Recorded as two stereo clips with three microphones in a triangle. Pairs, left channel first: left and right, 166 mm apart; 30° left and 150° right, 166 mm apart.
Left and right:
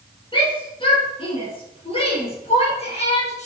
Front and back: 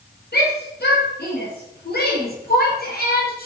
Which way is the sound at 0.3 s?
30° left.